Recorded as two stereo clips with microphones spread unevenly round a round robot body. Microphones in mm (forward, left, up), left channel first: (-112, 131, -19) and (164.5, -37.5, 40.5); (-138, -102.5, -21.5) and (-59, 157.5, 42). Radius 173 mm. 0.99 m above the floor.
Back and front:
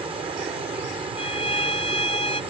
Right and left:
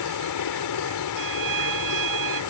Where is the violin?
75° left.